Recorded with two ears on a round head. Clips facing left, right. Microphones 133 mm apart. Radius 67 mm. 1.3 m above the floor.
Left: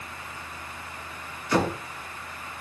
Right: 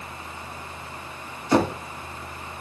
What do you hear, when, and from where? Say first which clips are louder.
1.5 s knocking: right 4 dB; 25° right (ahead or behind), 2.5 m